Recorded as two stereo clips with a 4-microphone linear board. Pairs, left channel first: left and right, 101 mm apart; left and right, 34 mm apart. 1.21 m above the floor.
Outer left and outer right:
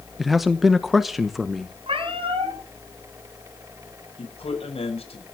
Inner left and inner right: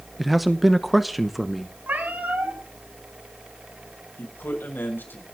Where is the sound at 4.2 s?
85° left, 6.5 m.